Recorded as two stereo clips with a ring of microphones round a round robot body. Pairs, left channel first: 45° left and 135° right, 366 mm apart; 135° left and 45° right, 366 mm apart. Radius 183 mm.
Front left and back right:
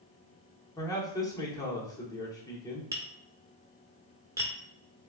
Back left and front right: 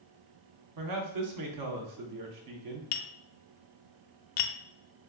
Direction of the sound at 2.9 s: 145° left.